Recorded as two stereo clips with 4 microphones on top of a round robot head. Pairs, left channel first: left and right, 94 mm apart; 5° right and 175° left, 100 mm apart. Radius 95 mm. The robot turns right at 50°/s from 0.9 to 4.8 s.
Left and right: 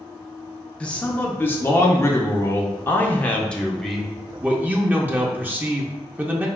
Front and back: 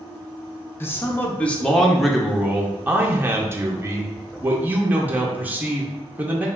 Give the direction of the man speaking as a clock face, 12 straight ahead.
11 o'clock.